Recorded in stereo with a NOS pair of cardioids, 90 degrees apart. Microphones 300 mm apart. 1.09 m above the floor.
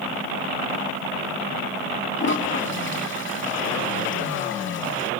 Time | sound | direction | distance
2.2 | a toilet flushing | 40° left | 2.5 m